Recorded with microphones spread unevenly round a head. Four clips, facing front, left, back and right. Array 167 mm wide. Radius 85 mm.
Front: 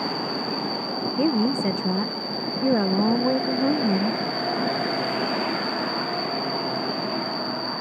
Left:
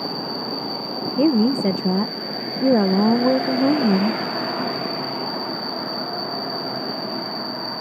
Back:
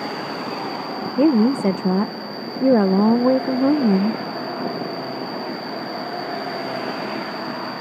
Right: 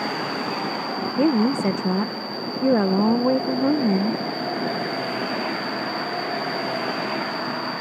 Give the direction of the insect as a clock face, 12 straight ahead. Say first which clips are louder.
Right 2 dB, back 1 dB; 10 o'clock.